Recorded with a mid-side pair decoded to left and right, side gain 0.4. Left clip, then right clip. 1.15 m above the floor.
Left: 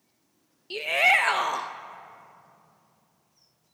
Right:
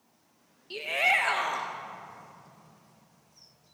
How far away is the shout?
About 1.0 m.